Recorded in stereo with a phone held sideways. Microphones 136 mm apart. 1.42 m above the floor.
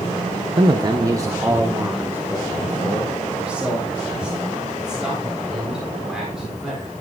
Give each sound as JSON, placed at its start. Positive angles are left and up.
{"t": 0.6, "sound": "a man speaking", "side_deg": -40, "distance_m": 0.7}